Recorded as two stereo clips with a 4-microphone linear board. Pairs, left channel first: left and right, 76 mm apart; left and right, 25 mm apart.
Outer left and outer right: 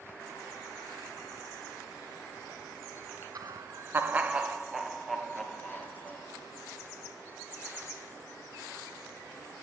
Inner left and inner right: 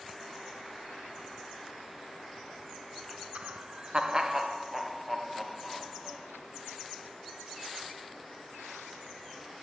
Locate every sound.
3.4 s laughter: 55° right (ahead or behind), 0.6 m; by 6.3 s 15° left (ahead or behind), 1.6 m